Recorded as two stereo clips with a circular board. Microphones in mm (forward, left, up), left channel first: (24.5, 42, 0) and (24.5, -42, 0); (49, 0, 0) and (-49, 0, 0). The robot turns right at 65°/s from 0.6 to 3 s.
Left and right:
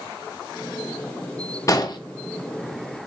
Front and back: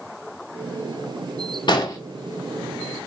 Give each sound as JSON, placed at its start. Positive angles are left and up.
{"t": 1.7, "sound": "an explosion", "azimuth_deg": 35, "distance_m": 0.6}